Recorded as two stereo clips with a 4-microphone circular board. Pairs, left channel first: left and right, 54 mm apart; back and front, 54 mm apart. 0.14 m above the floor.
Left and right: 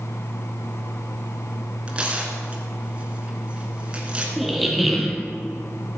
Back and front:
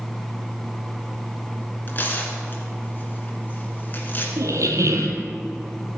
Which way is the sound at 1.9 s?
150° right.